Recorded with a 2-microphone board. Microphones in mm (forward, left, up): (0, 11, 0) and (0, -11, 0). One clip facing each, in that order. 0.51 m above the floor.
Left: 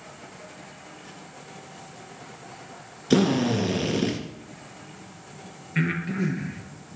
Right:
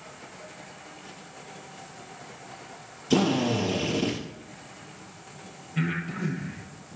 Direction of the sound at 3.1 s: 25° left (ahead or behind).